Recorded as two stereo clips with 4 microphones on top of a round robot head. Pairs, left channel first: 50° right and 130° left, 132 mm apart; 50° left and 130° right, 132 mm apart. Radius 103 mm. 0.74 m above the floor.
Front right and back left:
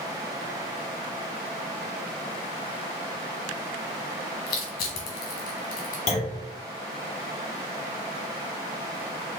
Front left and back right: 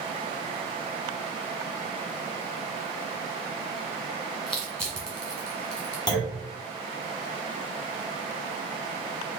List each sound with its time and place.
4.5 s crushing: 35° right, 0.8 m
6.1 s a clunk: 10° right, 1.6 m